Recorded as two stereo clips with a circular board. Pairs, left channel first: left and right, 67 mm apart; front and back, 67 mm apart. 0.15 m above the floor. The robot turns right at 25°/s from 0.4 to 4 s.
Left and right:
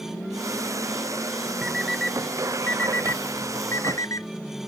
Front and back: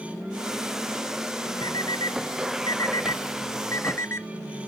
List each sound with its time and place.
1.6 s an alarm clock: 10° right; by 4.3 s 50° left